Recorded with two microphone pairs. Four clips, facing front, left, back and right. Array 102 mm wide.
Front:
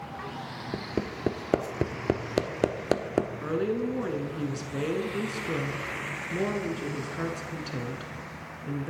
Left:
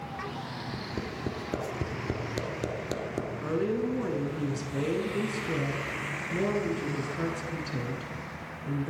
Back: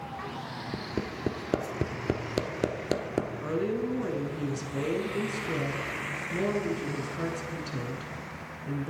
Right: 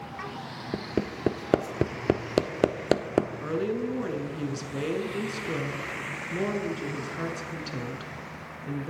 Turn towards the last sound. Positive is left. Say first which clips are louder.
# even, front 1 dB
turn(degrees=-15)